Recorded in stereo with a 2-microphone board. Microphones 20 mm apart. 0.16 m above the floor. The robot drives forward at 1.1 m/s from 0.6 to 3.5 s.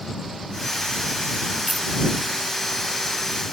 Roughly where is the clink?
Centre.